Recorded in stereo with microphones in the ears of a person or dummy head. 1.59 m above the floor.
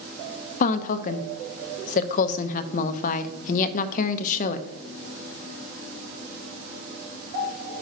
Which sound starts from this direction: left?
A woman speaking, at 0.6 s.